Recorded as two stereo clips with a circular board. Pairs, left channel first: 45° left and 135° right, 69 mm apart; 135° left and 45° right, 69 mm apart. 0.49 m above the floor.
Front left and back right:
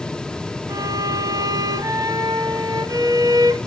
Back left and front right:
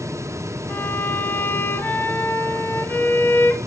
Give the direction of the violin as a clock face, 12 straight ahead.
5 o'clock.